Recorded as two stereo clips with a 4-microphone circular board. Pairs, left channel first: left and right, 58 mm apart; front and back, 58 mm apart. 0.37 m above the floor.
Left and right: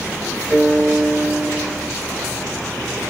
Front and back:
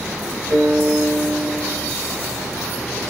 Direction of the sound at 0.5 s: 170° right.